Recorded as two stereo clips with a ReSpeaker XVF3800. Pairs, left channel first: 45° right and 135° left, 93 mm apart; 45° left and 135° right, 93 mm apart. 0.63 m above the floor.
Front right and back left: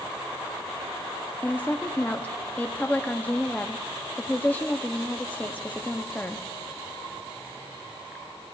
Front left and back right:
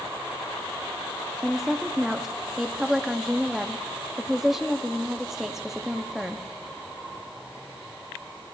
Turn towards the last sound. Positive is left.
turn(degrees=-60)